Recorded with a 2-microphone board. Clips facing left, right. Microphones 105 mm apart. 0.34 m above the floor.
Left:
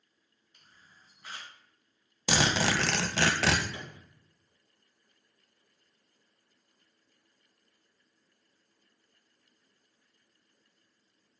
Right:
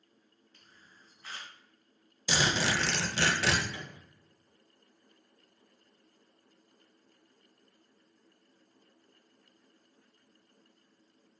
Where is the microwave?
25° left (ahead or behind), 1.8 m.